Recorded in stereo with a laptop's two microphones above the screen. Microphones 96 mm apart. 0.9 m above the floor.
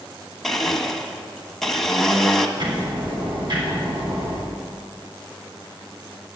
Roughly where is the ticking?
Right.